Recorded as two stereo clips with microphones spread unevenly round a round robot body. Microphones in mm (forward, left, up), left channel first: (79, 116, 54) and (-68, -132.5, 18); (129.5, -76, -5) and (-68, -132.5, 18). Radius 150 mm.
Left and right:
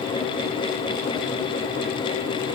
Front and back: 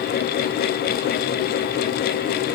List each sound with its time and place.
Only background noise.